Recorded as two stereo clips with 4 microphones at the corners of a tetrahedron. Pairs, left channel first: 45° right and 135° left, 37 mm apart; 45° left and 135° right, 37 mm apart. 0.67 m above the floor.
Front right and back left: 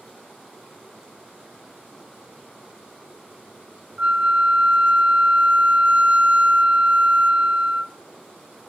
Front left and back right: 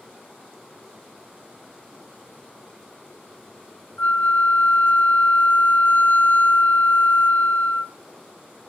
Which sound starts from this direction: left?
A flute, at 4.0 s.